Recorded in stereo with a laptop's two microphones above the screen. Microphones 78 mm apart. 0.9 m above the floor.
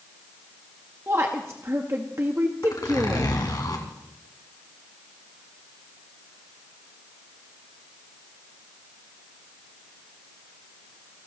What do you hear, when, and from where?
1.1 s a woman speaking: 35° right (ahead or behind), 0.9 m
2.6 s a zipper: 55° left (ahead or behind), 2.5 m